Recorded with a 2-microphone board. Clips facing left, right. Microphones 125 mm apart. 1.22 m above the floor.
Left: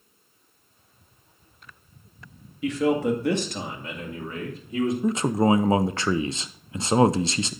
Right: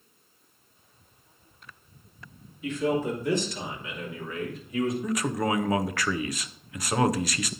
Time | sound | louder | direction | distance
2.6 | a man speaking | left 4 dB | 85° left | 1.9 m
5.0 | a man speaking | left 6 dB | 25° left (ahead or behind) | 0.5 m